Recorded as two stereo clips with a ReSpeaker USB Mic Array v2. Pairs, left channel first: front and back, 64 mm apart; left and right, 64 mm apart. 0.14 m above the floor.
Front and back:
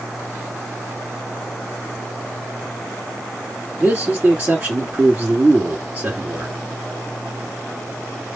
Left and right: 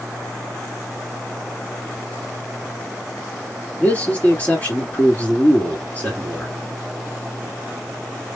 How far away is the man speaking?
About 2 m.